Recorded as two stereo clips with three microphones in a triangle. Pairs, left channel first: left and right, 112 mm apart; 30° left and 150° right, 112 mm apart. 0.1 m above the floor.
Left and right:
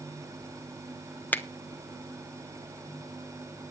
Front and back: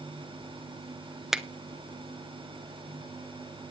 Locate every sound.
1.3 s a finger snap: 130° left, 0.9 m